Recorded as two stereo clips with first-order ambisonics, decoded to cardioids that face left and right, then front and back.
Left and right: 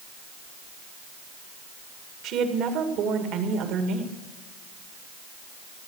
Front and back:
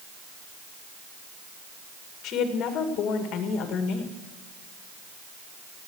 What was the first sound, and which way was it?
A woman speaking, 45° right.